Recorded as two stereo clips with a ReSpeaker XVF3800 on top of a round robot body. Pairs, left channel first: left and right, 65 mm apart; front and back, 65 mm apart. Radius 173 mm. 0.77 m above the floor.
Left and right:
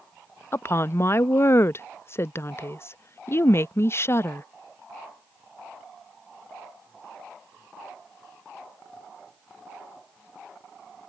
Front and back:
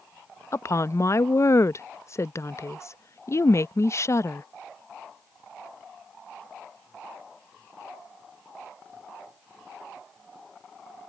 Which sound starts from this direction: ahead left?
A woman speaking, at 0.5 s.